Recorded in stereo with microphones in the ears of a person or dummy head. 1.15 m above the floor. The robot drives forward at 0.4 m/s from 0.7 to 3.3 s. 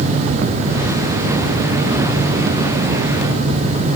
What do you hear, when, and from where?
Only background noise.